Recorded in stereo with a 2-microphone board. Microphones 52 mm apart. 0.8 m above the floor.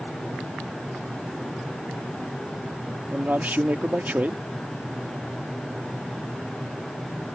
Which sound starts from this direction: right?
A man speaking, at 3.1 s.